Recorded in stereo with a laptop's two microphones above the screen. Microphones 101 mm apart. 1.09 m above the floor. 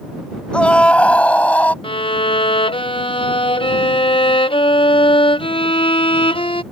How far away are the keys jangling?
I don't hear keys jangling.